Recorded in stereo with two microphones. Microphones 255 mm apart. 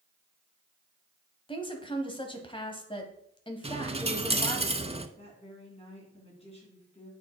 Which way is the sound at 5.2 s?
25° left (ahead or behind).